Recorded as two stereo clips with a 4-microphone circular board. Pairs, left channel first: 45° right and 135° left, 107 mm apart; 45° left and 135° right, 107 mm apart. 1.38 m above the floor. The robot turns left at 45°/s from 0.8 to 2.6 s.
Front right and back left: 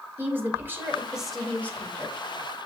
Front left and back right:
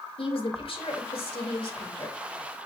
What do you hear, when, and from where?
0.2 s a woman speaking: 65° left, 2.5 m; by 2.2 s 5° left, 2.5 m